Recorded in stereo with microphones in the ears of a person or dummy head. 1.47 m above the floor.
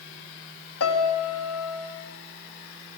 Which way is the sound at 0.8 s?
80° left.